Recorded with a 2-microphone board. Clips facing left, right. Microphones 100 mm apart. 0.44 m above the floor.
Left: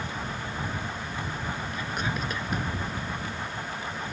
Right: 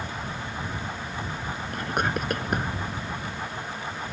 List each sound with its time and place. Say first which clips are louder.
1.7 s whispering: right 8 dB; 65° right (ahead or behind)